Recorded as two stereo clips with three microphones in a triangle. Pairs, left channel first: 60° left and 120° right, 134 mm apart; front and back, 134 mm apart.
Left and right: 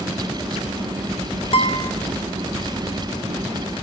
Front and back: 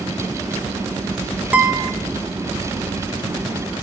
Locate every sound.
1.5 s a guitar: 100° left, 0.5 m